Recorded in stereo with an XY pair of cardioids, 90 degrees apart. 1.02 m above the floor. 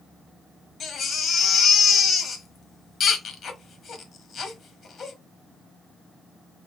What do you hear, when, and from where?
0.8 s a baby crying: 65° left, 1.2 m